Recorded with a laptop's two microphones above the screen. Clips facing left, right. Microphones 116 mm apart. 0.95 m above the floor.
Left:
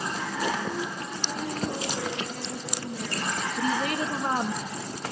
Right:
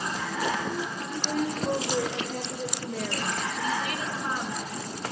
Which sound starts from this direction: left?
A woman speaking, at 3.6 s.